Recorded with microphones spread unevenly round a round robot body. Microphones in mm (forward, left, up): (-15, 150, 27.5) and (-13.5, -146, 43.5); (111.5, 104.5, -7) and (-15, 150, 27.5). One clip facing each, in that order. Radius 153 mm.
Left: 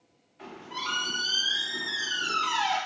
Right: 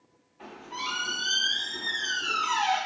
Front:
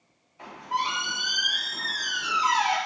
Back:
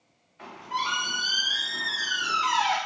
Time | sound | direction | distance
0.4 | a squeak | 45° left | 1.5 m